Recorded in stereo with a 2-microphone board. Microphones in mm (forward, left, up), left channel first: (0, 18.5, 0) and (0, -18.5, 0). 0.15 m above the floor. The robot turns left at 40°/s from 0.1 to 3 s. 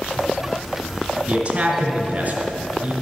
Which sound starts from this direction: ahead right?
A man speaking, at 1.3 s.